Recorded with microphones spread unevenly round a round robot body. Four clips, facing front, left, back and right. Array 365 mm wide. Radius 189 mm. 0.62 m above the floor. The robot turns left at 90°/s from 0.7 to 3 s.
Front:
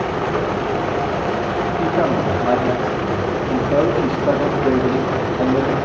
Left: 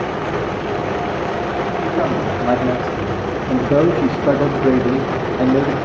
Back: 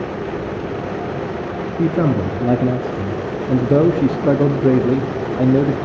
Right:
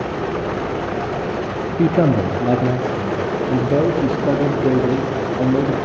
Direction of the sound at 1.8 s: 100° right.